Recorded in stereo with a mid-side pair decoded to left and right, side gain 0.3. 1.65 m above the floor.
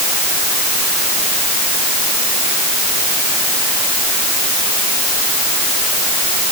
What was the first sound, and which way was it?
Only background noise.